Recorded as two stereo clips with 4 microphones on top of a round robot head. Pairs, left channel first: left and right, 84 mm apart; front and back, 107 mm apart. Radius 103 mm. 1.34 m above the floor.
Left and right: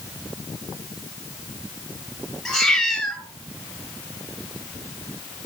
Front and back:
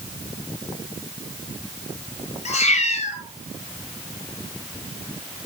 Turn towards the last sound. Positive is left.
turn(degrees=5)